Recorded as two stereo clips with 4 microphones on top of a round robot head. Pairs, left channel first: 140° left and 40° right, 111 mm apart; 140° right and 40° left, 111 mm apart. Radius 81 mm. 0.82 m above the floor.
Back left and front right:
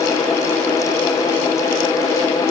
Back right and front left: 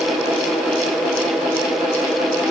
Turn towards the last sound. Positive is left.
No sound to turn to.